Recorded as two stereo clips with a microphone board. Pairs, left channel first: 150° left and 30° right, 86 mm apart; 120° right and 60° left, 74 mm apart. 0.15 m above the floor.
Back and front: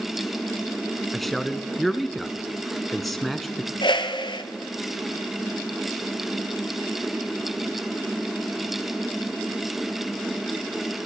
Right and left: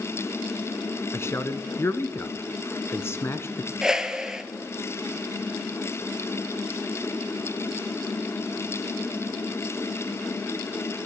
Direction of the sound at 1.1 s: 120° right.